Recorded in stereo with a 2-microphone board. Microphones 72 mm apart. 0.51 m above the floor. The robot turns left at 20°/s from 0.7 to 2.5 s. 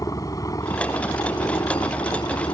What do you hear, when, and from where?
0.0 s a helicopter: 125° left; by 2.5 s 90° left